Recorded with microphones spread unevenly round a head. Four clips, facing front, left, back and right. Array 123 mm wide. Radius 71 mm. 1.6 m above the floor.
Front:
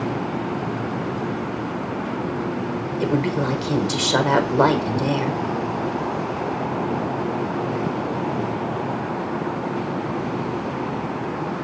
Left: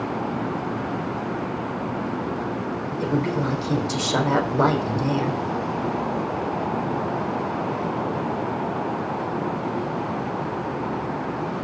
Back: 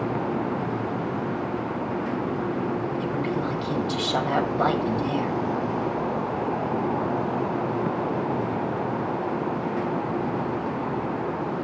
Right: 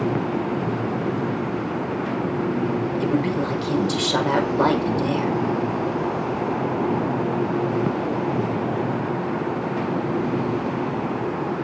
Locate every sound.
3.0 s a woman speaking: 5° left, 5 m